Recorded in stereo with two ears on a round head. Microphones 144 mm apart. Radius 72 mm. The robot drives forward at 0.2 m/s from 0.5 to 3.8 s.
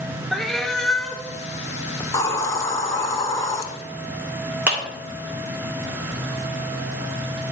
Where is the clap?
10° right (ahead or behind), 2 m.